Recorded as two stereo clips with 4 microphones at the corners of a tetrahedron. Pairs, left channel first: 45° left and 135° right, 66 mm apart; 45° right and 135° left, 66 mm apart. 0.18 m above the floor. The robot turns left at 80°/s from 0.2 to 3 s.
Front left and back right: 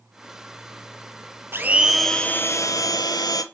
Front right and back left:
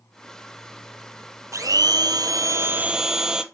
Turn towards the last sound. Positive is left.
turn(degrees=55)